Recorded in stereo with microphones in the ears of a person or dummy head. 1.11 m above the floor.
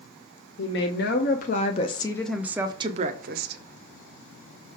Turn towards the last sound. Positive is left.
turn(degrees=-50)  # may be behind; listen again after turning